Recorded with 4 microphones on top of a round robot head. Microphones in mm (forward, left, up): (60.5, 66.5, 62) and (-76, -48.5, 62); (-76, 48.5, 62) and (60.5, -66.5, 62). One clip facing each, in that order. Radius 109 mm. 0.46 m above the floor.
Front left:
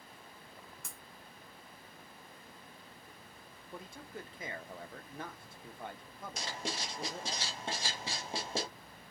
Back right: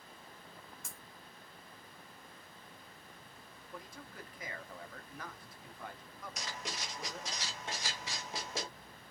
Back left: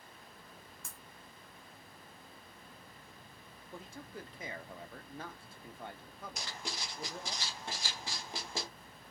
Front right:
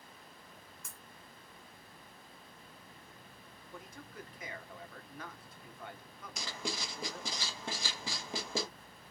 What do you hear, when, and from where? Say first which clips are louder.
0.8 s breaking glass: even, back left 1 dB; 80° left, 1.3 m
3.7 s a man speaking: front left 3 dB, back left 2 dB; 90° left, 1.0 m
6.4 s writing: front left 4 dB, front right 6 dB; 25° right, 0.6 m